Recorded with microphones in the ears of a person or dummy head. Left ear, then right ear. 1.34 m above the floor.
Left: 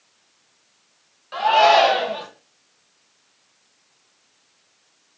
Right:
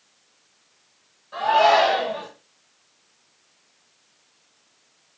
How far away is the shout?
About 1.4 m.